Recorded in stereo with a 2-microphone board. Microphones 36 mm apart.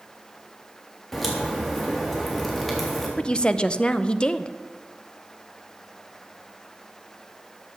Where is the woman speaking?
25° left (ahead or behind), 0.7 m.